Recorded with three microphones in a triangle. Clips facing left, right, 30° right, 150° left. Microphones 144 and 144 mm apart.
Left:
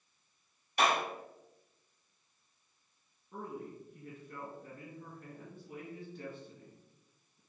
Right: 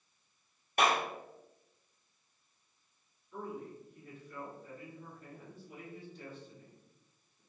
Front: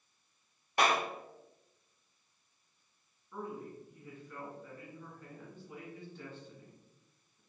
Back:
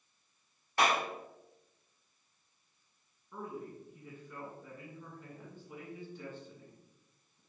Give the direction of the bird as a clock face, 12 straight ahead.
I don't hear a bird.